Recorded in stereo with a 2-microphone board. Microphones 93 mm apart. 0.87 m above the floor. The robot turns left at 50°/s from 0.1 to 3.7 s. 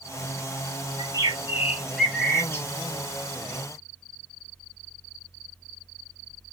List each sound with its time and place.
1.0 s a bird: 130° right, 0.7 m; by 2.7 s 150° left, 0.7 m